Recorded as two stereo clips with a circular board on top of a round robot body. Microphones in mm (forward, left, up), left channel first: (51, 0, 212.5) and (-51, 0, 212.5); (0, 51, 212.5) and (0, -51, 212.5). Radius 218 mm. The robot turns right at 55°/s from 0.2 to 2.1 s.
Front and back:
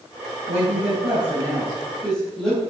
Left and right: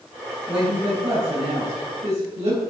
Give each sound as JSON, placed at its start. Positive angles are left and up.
{"t": 0.5, "sound": "a woman speaking", "azimuth_deg": -170, "distance_m": 4.0}